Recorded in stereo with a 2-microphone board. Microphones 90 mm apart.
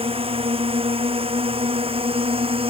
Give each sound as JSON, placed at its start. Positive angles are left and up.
{"t": 0.0, "sound": "a drone", "side_deg": -80}